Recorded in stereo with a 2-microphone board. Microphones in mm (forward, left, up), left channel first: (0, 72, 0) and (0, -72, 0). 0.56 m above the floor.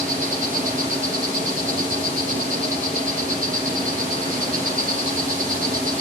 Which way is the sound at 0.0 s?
60° right (ahead or behind).